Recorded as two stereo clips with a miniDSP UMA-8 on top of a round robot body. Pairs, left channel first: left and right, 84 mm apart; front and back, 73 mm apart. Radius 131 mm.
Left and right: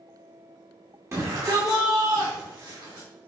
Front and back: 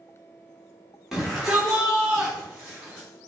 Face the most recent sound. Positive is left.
turn(degrees=-110)